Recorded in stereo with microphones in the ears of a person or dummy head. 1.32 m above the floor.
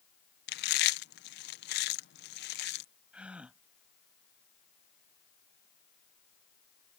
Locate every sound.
0.5 s chewing: 55° left (ahead or behind)
3.1 s a gasp: 5° right (ahead or behind)